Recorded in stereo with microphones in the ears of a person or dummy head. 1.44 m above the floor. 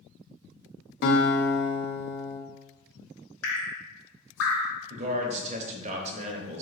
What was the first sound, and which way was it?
A guitar, 60° left (ahead or behind).